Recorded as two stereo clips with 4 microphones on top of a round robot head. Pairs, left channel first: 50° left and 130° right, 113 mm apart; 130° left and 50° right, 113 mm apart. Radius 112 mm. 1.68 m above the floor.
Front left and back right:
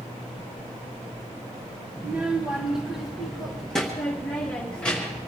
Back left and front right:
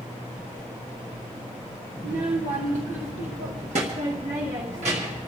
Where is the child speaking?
65° right, 1.0 m; by 5.3 s 25° right, 2.5 m.